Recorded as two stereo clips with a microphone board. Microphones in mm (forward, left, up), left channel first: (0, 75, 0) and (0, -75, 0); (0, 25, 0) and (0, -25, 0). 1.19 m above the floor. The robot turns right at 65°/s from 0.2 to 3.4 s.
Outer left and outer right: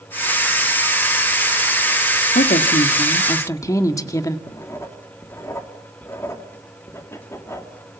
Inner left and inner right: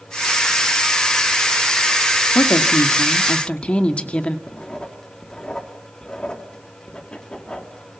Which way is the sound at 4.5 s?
20° left (ahead or behind).